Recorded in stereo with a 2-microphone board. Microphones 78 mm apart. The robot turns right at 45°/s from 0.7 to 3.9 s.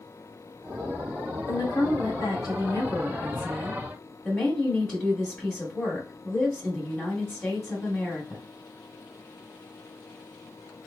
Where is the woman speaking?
50° left, 1.9 m; by 8.4 s 160° left, 1.9 m.